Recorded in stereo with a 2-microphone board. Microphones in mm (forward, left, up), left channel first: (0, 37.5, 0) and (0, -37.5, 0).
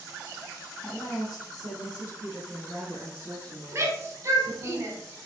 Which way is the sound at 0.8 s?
55° left (ahead or behind).